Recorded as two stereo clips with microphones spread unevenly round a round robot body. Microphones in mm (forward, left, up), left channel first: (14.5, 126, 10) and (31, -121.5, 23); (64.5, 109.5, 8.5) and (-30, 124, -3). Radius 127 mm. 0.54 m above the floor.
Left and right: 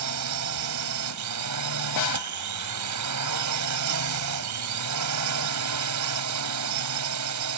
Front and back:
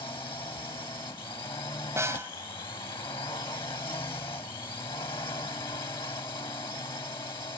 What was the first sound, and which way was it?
A drone, 75° right.